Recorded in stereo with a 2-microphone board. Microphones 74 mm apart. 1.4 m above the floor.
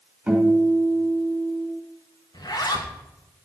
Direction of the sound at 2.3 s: 60° left (ahead or behind).